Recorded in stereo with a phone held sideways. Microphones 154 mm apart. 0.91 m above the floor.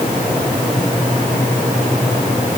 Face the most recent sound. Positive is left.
No sound to turn to.